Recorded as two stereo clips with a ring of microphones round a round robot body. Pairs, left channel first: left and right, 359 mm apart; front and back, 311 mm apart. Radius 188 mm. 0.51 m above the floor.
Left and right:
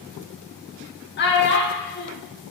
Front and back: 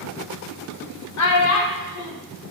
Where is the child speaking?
30° left, 0.7 m.